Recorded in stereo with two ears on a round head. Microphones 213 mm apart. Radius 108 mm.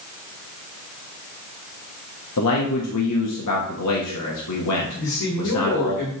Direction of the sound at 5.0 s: 90° left.